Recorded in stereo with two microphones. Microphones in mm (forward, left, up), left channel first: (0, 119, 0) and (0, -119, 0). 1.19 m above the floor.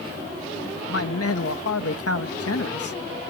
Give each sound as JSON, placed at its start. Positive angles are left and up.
{"t": 0.9, "sound": "a man speaking", "side_deg": 80}